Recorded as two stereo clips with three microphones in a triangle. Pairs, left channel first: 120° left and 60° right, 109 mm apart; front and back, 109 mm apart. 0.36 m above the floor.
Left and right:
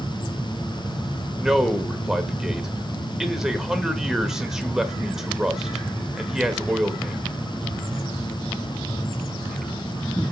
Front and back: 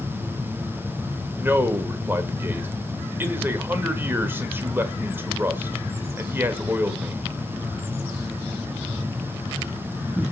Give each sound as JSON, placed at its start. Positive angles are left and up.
{"t": 1.4, "sound": "a man speaking", "azimuth_deg": -140, "distance_m": 1.3}